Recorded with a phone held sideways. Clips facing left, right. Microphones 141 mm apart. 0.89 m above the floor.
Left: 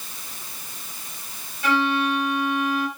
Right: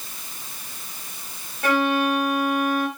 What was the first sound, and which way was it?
A violin, 55° right (ahead or behind).